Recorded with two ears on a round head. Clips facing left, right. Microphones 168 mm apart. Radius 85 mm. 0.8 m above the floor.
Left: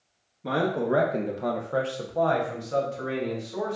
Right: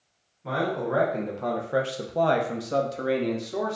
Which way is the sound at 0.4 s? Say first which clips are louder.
Left 2 dB; 45° left (ahead or behind).